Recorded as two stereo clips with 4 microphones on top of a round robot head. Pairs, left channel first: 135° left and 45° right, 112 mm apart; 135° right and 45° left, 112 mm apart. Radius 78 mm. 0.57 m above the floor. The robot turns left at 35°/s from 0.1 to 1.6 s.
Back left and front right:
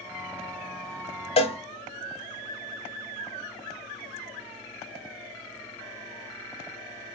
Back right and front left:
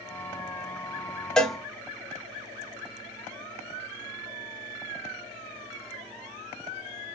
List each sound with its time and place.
1.4 s a cowbell: 140° left, 0.6 m; by 1.6 s 135° left, 0.6 m